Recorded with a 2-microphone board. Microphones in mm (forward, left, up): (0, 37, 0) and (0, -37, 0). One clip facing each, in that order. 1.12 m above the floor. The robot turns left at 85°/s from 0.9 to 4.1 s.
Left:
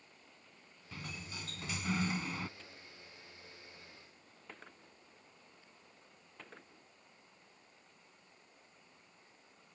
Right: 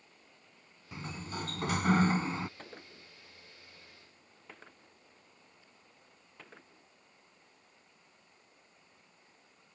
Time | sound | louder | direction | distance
0.9 | a sliding door | right 6 dB | 20° right | ?
2.6 | a gunshot | right 5 dB | 50° right (ahead or behind) | ?